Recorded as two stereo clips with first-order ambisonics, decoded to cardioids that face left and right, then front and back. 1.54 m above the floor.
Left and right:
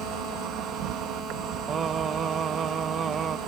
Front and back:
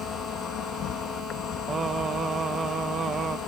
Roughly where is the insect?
Ahead right.